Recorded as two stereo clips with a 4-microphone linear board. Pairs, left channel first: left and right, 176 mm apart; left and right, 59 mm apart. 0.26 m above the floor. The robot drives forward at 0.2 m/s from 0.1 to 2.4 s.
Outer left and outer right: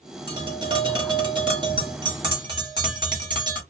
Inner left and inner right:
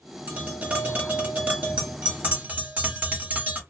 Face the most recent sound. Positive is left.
turn(degrees=-30)  # may be behind; listen again after turning